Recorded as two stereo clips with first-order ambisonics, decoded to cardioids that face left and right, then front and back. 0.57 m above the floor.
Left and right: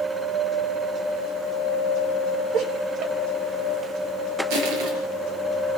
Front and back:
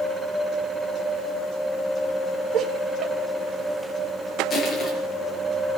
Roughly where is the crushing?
Right.